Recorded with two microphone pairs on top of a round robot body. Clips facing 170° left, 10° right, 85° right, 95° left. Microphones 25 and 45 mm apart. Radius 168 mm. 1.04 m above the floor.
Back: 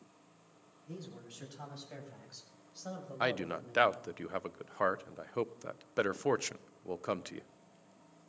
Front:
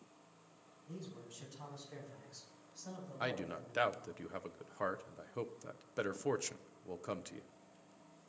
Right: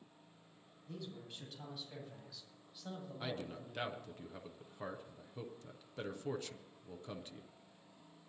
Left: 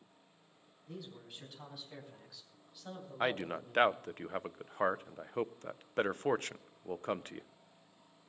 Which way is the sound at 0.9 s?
Straight behind.